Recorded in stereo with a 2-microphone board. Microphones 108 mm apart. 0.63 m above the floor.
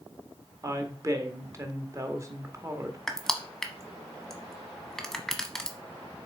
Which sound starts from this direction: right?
A woman speaking, at 0.6 s.